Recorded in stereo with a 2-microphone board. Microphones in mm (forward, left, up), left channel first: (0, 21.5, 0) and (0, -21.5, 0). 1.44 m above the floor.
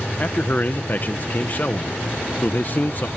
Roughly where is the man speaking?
Left.